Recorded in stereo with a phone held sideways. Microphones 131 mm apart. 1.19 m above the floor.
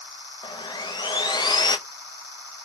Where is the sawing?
35° left (ahead or behind), 0.6 m.